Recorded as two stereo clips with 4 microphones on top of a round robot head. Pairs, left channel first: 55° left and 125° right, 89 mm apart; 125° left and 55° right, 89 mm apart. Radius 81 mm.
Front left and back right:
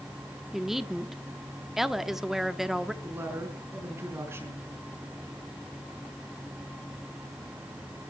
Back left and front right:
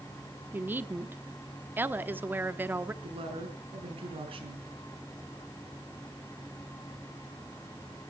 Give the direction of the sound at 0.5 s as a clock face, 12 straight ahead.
2 o'clock.